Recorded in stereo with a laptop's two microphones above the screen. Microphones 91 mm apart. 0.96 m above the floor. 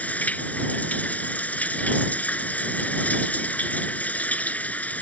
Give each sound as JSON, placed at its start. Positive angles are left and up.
{"t": 0.0, "sound": "running water", "side_deg": 15}